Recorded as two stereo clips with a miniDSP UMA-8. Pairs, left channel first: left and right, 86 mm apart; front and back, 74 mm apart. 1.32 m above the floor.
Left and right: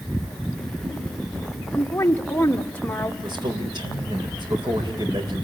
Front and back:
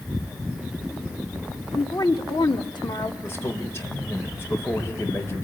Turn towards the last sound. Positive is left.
turn(degrees=-60)